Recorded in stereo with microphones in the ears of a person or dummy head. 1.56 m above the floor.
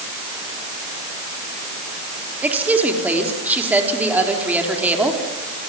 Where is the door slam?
I don't hear a door slam.